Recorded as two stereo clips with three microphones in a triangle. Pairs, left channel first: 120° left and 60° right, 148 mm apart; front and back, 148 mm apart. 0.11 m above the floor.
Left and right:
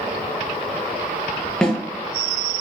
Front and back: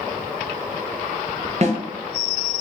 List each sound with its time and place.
1.6 s a snare drum: 155° right, 0.8 m